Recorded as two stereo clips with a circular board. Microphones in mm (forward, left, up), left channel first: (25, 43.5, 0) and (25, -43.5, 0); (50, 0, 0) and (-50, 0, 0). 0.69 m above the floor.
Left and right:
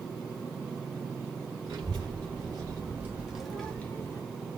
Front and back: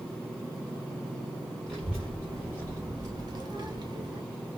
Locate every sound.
1.7 s a child speaking: 95° right, 1.1 m; by 4.2 s 145° left, 0.8 m